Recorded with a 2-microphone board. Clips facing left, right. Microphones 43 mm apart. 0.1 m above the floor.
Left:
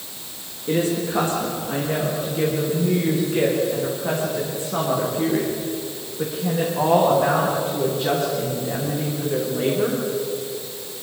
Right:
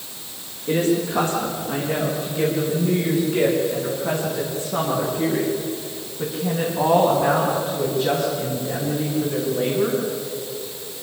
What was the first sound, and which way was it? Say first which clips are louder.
A woman speaking: right 1 dB; 10° left (ahead or behind).